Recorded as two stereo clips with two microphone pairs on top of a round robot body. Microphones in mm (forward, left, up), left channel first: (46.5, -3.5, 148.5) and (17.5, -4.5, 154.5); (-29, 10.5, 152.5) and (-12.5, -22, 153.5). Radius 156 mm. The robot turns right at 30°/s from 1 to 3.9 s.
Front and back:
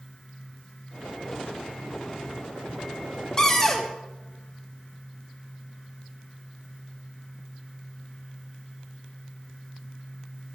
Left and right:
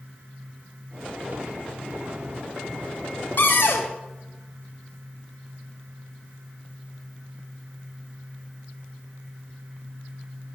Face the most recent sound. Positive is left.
turn(degrees=95)